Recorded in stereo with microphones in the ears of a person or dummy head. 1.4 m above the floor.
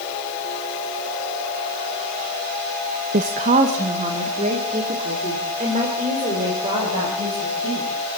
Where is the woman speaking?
35° right (ahead or behind), 0.7 m.